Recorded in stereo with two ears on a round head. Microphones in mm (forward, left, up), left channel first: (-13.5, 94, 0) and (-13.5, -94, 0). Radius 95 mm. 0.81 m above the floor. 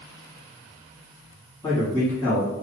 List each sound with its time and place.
1.6 s a man speaking: 20° left (ahead or behind), 1.3 m